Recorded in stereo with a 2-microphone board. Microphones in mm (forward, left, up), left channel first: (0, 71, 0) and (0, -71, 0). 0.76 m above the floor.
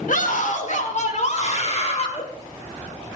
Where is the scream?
70° left (ahead or behind), 2.0 m; by 2.2 s 45° left (ahead or behind), 3 m.